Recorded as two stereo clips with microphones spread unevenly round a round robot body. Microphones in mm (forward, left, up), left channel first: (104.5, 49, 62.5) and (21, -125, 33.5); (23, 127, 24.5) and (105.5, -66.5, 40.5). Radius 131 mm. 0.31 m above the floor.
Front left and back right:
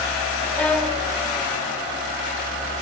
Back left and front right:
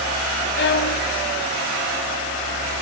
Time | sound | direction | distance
0.6 | a violin | 150° left | 1.2 m